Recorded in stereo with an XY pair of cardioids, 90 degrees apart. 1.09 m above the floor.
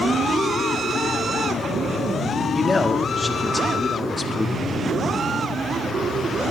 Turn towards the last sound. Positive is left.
turn(degrees=25)